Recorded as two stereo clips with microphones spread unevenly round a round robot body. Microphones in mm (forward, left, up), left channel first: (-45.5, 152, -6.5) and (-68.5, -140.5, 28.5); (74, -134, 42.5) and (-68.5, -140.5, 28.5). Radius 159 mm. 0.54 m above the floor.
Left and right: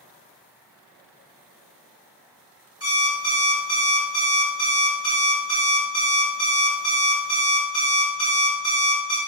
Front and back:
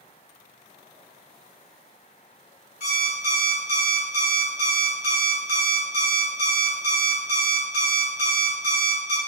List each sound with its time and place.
2.8 s an alarm clock: 10° left, 2 m